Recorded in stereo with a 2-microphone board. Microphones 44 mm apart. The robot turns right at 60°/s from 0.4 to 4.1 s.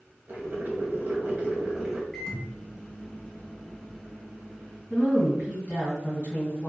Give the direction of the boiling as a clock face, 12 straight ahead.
4 o'clock.